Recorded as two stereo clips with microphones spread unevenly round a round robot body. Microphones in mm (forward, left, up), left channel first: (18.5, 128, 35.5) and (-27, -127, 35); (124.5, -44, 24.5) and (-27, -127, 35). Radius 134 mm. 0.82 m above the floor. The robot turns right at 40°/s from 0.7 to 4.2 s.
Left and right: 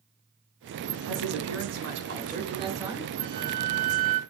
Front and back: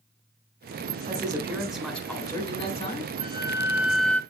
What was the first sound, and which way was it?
A man speaking, 90° right.